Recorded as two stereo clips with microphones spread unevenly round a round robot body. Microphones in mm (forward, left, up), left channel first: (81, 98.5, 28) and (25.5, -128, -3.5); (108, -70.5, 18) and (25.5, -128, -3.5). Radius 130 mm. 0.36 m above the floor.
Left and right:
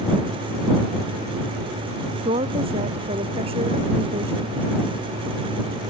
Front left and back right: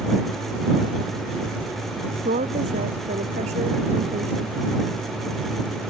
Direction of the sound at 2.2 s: 175° right.